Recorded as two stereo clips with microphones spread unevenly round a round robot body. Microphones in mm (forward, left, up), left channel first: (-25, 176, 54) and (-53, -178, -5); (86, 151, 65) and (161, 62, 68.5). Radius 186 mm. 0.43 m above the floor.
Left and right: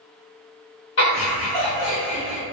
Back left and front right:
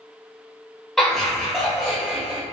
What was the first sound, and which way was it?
Laughter, 60° left.